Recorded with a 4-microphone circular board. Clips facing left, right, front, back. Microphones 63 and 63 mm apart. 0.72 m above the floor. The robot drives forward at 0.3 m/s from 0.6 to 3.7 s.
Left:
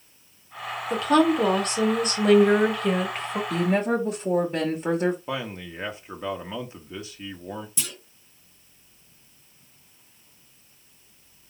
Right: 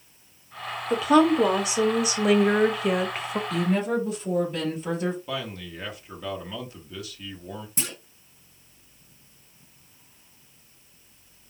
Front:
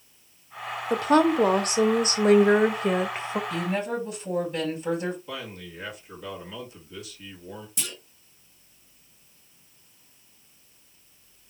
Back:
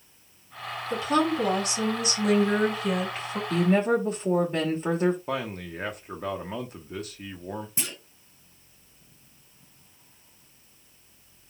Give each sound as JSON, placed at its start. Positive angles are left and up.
{"t": 0.9, "sound": "a woman speaking", "azimuth_deg": -5, "distance_m": 1.5}
{"t": 3.5, "sound": "a woman speaking", "azimuth_deg": 140, "distance_m": 2.0}
{"t": 5.3, "sound": "a man speaking", "azimuth_deg": 150, "distance_m": 1.4}
{"t": 7.8, "sound": "a clunk", "azimuth_deg": -130, "distance_m": 1.1}